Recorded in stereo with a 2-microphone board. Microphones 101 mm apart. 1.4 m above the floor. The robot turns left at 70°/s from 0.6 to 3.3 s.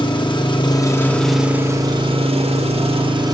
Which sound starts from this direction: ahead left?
An engine running, at 0.0 s.